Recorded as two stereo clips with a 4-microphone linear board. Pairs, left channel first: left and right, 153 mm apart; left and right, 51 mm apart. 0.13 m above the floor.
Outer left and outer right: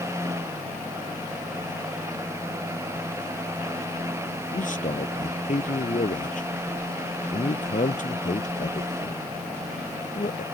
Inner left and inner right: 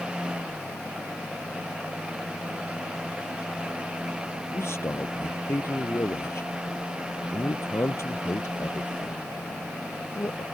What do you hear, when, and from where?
4.5 s a man speaking: 60° left (ahead or behind)